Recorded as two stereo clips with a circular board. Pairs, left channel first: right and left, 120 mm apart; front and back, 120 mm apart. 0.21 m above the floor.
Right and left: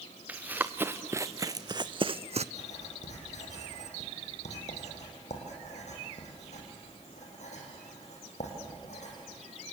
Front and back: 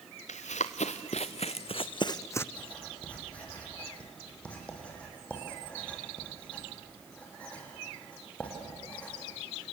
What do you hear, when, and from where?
0.3 s running footsteps: 15° left, 1.7 m; by 2.5 s 70° left, 0.7 m
2.5 s writing: 80° right, 5.5 m